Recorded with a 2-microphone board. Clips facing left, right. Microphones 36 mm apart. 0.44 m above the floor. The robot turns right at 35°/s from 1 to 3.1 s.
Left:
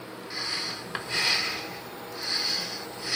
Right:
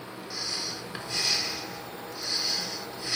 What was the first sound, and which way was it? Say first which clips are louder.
Breathing: left 2 dB; 30° left (ahead or behind).